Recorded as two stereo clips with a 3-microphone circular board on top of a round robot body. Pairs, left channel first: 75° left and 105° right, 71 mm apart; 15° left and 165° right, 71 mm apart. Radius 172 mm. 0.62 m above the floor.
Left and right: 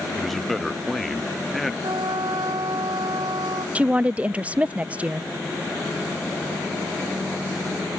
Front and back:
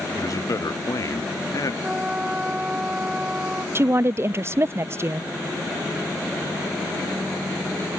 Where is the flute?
90° right.